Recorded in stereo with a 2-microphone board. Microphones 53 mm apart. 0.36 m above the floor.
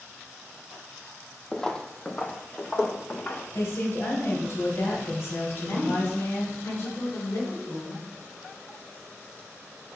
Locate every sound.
1.5 s footsteps: 10° left (ahead or behind), 0.6 m; by 3.4 s 30° left (ahead or behind), 1.8 m
3.5 s a woman speaking: 55° left (ahead or behind), 2.5 m
5.5 s a woman speaking: 65° left (ahead or behind), 3.5 m